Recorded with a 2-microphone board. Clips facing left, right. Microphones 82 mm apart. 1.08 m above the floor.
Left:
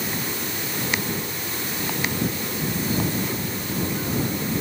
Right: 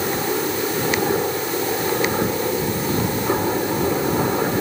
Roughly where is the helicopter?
Right.